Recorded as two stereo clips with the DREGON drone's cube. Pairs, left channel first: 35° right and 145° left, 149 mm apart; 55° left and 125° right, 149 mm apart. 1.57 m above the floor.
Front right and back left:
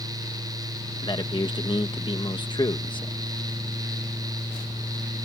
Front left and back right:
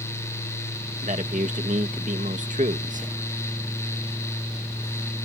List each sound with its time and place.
1.0 s a man speaking: 95° right